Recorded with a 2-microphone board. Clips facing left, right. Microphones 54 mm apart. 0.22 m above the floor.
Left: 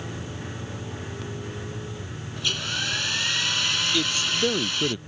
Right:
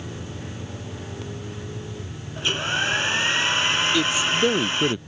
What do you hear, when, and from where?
2.4 s a hair dryer: 35° right (ahead or behind)
3.9 s a man speaking: 10° right (ahead or behind)